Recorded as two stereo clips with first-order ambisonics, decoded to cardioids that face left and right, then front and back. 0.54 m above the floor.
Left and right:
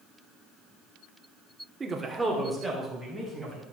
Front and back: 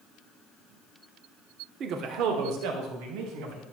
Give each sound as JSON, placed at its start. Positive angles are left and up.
{"t": 1.8, "sound": "a man speaking", "azimuth_deg": -155, "distance_m": 1.0}